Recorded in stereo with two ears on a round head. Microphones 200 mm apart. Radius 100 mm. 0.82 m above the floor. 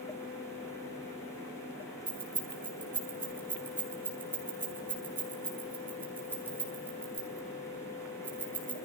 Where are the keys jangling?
10° right (ahead or behind), 7 m.